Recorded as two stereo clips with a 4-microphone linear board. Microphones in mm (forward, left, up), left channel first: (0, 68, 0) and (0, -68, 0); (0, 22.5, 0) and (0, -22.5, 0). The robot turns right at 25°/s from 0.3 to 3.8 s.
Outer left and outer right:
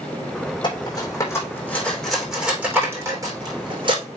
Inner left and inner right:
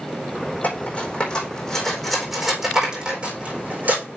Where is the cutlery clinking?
40° left (ahead or behind), 4.5 m; by 4.0 s 40° right (ahead or behind), 4.5 m.